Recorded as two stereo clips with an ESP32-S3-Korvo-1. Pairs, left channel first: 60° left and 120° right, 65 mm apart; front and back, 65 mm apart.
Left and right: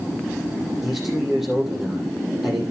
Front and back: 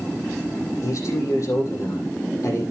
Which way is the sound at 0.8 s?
35° right.